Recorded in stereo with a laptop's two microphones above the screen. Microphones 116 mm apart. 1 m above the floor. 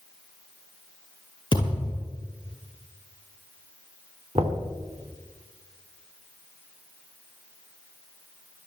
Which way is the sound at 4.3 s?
55° right (ahead or behind).